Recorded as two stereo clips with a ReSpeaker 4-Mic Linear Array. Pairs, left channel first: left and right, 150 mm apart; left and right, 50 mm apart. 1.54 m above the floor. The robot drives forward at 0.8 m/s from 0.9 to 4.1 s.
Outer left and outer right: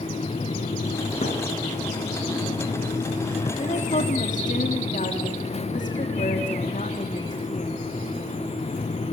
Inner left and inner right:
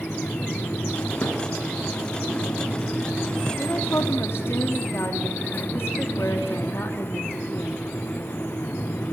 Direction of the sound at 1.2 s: 45° left (ahead or behind).